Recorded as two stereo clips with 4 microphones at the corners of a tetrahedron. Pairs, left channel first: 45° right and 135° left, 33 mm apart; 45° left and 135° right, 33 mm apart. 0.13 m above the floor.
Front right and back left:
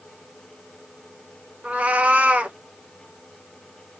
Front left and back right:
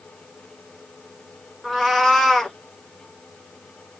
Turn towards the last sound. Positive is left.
turn(degrees=125)